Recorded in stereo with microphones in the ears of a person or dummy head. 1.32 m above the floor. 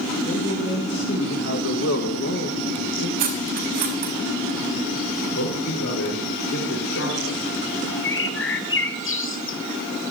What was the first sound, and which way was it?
A man speaking, 45° left (ahead or behind).